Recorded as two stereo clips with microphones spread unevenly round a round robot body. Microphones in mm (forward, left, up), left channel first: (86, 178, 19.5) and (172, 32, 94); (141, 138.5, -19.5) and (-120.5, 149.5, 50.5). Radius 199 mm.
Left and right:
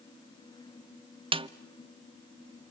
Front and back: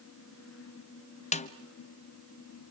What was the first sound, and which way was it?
A snare drum, 20° left.